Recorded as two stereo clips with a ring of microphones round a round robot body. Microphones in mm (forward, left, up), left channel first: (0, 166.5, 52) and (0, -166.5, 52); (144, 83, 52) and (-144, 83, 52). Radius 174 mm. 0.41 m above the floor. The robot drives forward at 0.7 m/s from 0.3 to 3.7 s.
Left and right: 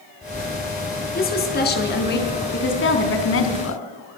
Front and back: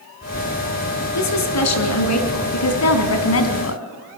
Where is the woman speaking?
25° left, 4.5 m; by 3.8 s 40° left, 3 m.